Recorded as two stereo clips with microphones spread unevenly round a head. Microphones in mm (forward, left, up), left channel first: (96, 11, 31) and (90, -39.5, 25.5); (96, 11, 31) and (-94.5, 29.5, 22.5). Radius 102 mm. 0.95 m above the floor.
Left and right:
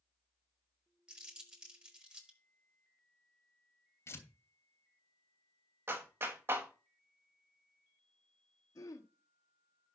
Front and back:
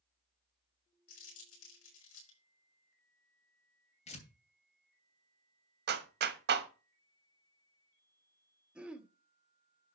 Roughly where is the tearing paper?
Ahead left.